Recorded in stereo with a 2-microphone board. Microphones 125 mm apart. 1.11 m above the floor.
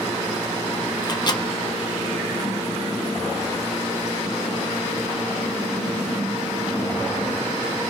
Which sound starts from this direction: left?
A microwave, at 1.0 s.